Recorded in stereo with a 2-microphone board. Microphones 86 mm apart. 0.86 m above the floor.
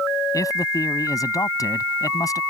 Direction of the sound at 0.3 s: 45° left (ahead or behind).